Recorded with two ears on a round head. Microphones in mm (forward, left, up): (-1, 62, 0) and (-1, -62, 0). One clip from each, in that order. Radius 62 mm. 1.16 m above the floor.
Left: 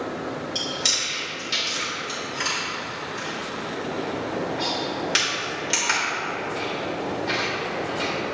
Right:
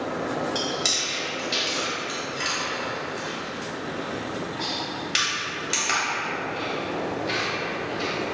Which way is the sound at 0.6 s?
10° left (ahead or behind).